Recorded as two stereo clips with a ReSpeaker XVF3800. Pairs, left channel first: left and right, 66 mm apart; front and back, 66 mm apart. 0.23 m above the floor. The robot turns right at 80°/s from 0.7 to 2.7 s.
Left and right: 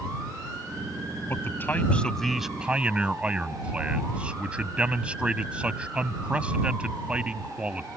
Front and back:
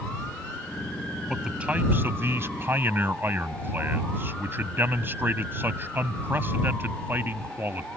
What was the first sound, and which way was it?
A man speaking, 95° left.